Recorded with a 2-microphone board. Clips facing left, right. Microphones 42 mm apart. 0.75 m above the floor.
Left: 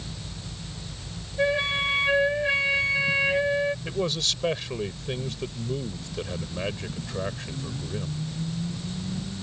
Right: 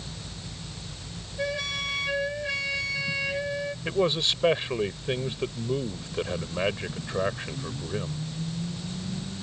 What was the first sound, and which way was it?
A flute, 25° left (ahead or behind).